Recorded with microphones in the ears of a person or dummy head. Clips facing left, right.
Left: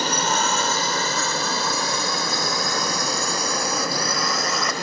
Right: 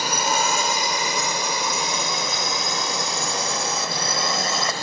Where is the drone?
10° right (ahead or behind); by 4.8 s 25° right (ahead or behind).